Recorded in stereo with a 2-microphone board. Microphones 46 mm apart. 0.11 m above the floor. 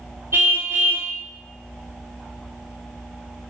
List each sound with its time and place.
0.3 s a car horn: 60° right (ahead or behind), 4.5 m